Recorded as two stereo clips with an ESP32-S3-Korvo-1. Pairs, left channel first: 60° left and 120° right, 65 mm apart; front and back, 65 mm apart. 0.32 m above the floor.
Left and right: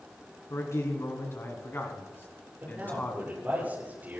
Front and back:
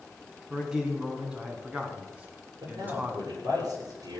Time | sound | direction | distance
0.5 | a man speaking | 100° left | 3.5 m
2.6 | a man speaking | 175° left | 9.5 m